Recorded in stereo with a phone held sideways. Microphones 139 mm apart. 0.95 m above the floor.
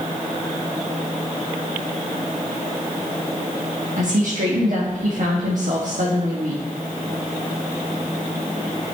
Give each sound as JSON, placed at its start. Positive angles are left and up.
{"t": 4.0, "sound": "a woman speaking", "side_deg": -65, "distance_m": 1.2}